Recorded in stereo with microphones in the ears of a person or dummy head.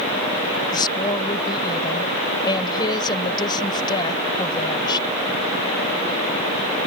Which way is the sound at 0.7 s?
25° left (ahead or behind).